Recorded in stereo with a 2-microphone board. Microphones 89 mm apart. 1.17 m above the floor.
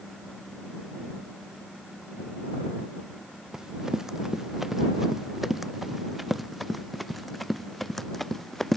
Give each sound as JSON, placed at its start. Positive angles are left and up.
{"t": 3.5, "sound": "running footsteps", "side_deg": -5}